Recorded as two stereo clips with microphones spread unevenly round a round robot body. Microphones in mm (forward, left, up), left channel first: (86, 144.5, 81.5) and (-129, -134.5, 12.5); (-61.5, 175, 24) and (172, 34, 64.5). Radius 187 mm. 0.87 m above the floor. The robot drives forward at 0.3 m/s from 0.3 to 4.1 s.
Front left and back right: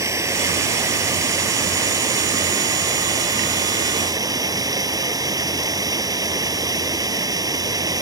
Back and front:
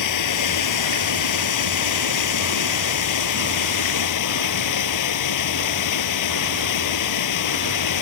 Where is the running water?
150° left.